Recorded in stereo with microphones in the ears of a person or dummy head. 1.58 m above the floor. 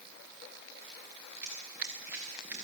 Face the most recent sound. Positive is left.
turn(degrees=-5)  # may be behind; listen again after turning